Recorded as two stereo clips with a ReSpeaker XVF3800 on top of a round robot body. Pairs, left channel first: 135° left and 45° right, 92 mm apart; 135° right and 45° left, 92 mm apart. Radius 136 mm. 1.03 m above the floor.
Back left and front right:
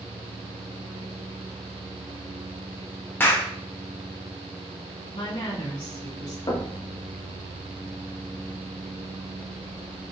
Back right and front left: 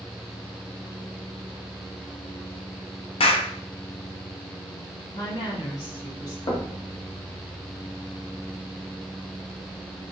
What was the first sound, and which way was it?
A clap, 155° right.